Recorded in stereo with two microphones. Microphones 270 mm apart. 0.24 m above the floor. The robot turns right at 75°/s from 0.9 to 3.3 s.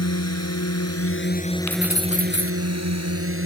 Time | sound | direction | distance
0.0 | a drone | 70° left (ahead or behind) | ?
1.7 | keys jangling | 85° left | ?